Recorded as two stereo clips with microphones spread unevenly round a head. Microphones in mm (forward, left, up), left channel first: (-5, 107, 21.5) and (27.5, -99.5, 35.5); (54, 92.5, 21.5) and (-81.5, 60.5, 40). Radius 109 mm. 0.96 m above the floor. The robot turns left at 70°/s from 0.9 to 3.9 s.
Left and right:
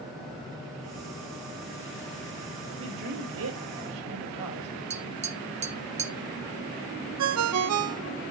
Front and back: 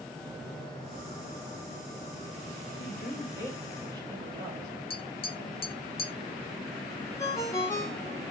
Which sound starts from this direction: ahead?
A woman speaking, at 2.7 s.